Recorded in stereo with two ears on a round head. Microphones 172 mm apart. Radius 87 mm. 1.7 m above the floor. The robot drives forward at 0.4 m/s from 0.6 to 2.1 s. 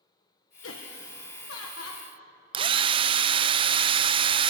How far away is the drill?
About 0.5 m.